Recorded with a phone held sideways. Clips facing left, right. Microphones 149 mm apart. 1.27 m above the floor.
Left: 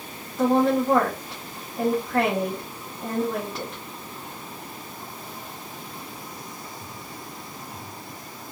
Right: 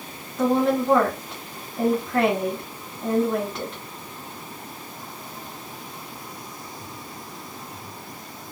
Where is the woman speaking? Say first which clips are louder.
Left 1 dB; centre (ahead or behind), 1.2 m.